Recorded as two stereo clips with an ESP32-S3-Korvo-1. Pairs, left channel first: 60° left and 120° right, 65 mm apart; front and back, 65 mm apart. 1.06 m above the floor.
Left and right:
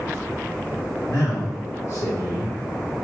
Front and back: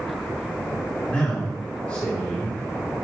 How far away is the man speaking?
About 3.5 m.